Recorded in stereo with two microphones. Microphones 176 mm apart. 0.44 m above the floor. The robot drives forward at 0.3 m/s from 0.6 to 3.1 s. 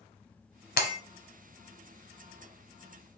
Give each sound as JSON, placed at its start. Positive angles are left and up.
{"t": 0.8, "sound": "breaking glass", "side_deg": 65, "distance_m": 0.9}